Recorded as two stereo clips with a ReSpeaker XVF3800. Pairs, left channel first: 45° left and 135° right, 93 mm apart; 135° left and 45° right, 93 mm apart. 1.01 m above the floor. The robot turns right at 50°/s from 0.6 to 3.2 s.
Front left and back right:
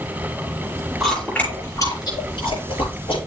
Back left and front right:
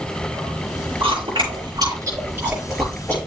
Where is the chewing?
45° right, 6.5 m; by 3.2 s 60° left, 6.5 m.